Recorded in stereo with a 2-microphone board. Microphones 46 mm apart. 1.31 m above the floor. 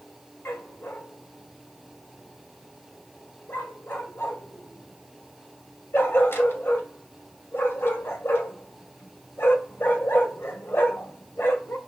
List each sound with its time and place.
0.5 s a dog barking: 50° left (ahead or behind), 1.8 m